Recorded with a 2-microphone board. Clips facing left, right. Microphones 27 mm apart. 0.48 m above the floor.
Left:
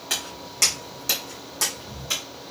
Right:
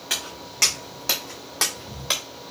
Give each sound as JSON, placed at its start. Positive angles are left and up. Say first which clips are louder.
{"t": 0.1, "sound": "footsteps", "louder": "right 1 dB", "side_deg": -10, "distance_m": 1.9}